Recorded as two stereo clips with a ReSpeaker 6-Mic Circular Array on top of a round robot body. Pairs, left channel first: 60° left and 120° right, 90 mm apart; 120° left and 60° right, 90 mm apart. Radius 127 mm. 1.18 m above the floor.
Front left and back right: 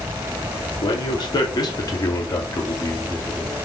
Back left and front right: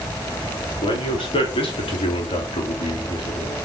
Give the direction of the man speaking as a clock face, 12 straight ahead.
9 o'clock.